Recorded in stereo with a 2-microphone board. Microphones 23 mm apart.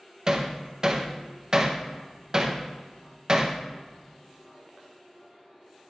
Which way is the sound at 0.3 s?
25° right (ahead or behind).